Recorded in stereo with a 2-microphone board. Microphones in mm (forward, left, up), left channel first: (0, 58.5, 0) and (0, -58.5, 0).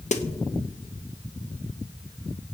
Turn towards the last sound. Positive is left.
turn(degrees=85)